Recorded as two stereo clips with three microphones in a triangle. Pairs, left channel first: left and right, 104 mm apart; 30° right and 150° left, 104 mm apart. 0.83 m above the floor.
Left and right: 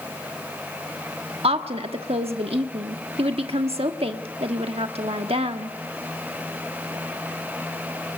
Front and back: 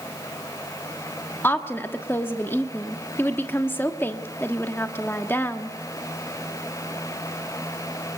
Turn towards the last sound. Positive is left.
turn(degrees=-100)